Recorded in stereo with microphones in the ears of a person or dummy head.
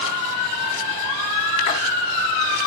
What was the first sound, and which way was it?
A splash, 35° left (ahead or behind).